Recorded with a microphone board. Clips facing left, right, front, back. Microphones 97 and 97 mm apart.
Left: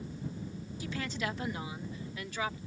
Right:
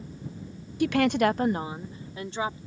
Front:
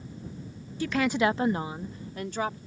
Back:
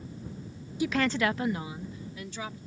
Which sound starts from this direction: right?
A woman speaking, at 0.8 s.